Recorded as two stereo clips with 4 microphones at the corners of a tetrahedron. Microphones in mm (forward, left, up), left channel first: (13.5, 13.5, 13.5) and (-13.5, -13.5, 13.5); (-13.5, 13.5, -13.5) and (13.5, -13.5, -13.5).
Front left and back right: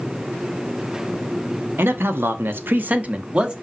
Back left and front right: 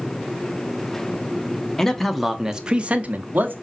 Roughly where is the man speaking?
Behind right.